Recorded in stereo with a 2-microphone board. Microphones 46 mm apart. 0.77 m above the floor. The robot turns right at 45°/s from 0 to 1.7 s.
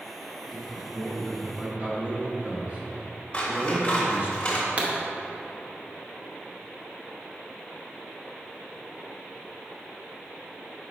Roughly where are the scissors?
Left.